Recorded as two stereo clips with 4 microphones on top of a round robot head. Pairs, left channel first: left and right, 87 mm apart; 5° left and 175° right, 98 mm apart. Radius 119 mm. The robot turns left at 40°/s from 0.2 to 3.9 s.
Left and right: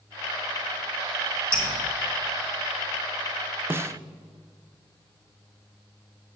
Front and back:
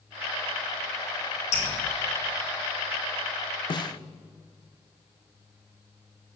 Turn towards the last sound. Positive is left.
turn(degrees=-35)